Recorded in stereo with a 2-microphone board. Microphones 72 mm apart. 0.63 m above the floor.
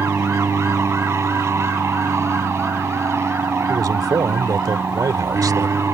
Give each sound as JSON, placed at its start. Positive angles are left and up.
{"t": 0.0, "sound": "an aircraft", "side_deg": -40}
{"t": 3.7, "sound": "a man speaking", "side_deg": -60}